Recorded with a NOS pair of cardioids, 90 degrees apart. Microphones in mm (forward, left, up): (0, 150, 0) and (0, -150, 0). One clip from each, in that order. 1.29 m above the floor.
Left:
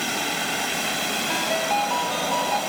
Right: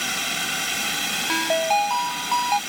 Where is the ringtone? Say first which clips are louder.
Right 4 dB; 45° right.